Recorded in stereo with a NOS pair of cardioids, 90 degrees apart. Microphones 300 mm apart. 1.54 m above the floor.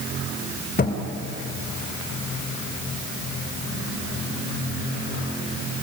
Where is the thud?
30° left, 3 m.